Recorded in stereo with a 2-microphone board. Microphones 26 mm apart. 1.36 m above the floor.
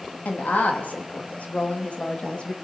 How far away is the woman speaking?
About 3 m.